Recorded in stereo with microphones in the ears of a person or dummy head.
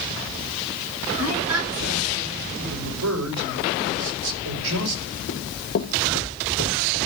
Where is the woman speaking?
80° right, 9.5 m.